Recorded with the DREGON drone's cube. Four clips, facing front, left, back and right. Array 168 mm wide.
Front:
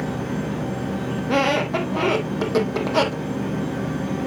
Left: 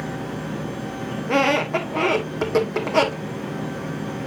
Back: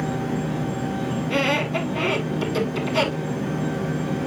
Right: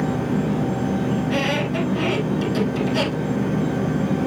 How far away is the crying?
I don't hear crying.